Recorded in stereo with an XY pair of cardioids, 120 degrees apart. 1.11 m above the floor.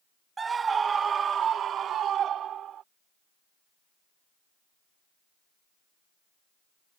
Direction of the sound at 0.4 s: 25° right.